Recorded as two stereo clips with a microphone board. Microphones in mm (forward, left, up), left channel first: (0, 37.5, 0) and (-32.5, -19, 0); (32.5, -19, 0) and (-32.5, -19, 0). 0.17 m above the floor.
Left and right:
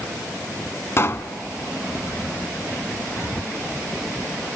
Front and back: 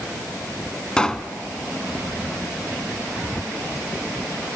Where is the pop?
70° left, 0.9 m.